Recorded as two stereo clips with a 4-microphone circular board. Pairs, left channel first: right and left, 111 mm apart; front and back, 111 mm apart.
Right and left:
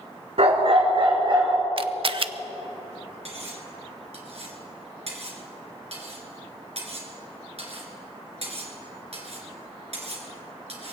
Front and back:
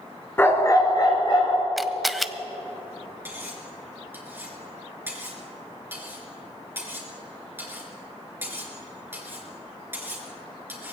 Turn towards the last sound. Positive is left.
turn(degrees=110)